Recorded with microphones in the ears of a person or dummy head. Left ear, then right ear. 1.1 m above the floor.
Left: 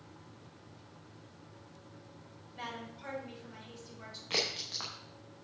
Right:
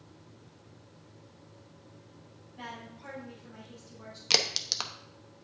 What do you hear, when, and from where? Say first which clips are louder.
2.5 s a woman speaking: left 1 dB; 30° left (ahead or behind), 5 m
4.3 s a crack: right 7 dB; 85° right, 0.9 m